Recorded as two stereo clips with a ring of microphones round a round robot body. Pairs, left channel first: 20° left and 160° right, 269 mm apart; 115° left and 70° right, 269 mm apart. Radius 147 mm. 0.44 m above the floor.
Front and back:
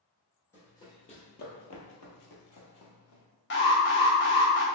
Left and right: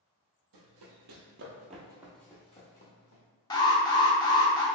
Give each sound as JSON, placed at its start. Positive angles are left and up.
{"t": 0.5, "sound": "running footsteps", "azimuth_deg": -60, "distance_m": 0.9}
{"t": 3.5, "sound": "an alarm", "azimuth_deg": 45, "distance_m": 0.9}